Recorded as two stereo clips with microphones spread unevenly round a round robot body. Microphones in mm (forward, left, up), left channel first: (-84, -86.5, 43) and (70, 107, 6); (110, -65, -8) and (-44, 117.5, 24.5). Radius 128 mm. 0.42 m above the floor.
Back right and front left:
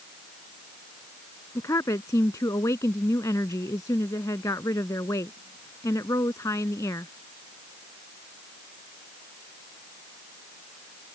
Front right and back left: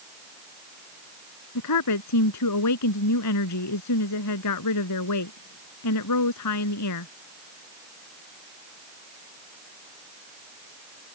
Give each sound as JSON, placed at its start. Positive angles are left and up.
{"t": 1.6, "sound": "a woman speaking", "azimuth_deg": -50}